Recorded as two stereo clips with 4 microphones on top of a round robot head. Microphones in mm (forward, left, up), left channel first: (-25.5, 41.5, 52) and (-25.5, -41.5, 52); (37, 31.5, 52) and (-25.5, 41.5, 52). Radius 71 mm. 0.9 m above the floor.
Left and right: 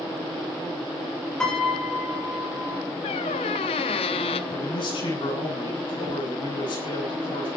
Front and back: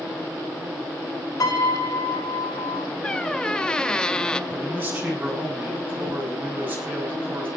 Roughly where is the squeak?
Left.